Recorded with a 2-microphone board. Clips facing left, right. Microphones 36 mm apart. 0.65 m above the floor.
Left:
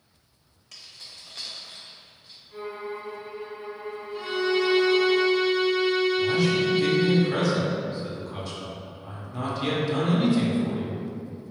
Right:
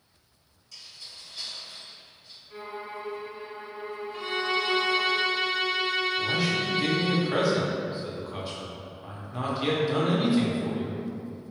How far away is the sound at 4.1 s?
About 0.5 m.